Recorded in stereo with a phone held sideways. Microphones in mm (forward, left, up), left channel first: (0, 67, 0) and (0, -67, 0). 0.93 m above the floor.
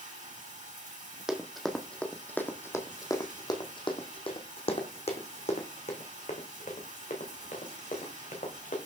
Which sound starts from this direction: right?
Running water, at 0.0 s.